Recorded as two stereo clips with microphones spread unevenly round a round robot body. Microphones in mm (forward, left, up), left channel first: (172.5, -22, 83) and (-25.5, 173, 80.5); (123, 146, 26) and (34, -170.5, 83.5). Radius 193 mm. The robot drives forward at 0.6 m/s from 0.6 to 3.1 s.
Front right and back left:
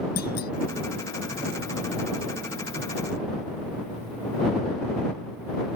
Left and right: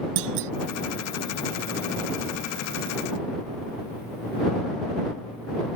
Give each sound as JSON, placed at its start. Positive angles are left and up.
{"t": 0.2, "sound": "a clunk", "azimuth_deg": -110}